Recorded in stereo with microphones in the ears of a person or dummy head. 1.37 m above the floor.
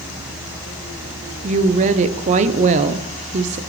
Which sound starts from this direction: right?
A woman speaking, at 1.4 s.